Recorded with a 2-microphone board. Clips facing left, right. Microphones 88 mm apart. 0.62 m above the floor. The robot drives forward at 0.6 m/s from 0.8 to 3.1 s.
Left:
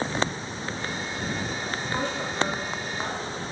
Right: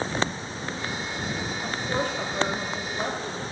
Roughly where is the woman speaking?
Right.